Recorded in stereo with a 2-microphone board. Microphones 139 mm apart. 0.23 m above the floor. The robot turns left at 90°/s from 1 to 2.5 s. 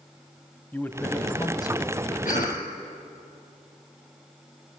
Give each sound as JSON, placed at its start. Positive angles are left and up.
{"t": 0.7, "sound": "a man speaking", "side_deg": 15, "distance_m": 1.0}
{"t": 2.2, "sound": "a cough", "side_deg": 75, "distance_m": 5.0}